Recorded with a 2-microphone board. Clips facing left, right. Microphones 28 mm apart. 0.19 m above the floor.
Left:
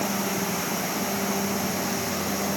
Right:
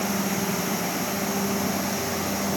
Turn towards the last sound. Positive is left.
No sound to turn to.